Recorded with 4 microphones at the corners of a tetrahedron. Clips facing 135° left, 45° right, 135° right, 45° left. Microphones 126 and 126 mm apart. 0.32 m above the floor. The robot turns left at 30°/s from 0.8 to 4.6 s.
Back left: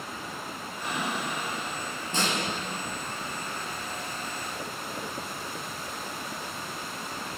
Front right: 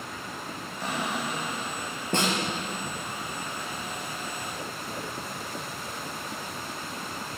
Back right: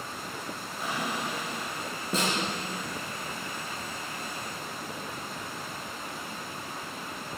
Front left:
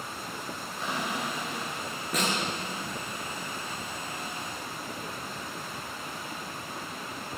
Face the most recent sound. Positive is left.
turn(degrees=-150)